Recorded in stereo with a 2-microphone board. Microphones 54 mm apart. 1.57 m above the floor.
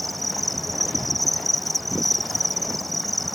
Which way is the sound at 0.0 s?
Centre (ahead or behind).